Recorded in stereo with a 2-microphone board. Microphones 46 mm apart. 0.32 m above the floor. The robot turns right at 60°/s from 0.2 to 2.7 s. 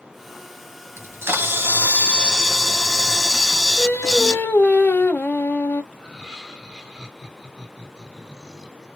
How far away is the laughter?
About 1.8 m.